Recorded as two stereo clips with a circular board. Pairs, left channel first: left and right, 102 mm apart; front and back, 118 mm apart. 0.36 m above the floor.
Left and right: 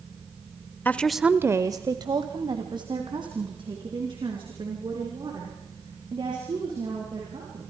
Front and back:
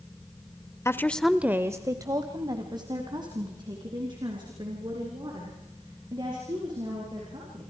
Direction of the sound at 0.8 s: 40° left.